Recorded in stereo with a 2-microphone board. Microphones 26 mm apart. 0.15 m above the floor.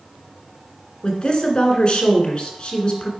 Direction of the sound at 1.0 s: 40° left (ahead or behind).